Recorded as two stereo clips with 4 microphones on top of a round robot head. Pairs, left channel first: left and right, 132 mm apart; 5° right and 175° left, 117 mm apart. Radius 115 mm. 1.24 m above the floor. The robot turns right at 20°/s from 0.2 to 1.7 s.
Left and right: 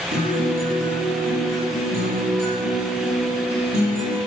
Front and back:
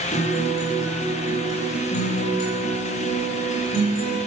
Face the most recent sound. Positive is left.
turn(degrees=-35)